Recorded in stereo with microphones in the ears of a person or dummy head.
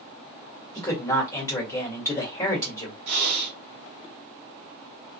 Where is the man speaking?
20° left (ahead or behind), 1.4 m.